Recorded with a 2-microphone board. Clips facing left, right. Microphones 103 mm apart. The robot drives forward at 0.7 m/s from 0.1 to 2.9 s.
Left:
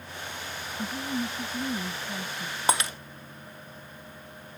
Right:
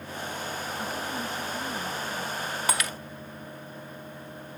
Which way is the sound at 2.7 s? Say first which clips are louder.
Left 5 dB; 25° left (ahead or behind).